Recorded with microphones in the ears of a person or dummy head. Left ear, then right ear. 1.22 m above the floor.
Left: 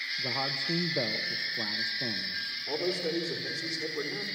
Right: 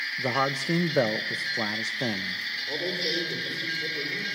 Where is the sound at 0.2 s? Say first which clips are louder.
Right 6 dB; 50° right (ahead or behind), 0.7 m.